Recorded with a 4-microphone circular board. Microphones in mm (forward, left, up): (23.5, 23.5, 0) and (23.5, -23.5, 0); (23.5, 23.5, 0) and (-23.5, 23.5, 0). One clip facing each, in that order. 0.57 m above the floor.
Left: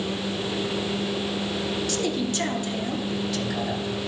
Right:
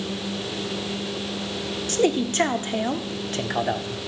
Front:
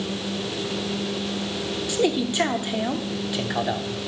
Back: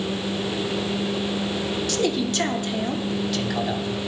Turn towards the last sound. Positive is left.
turn(degrees=-70)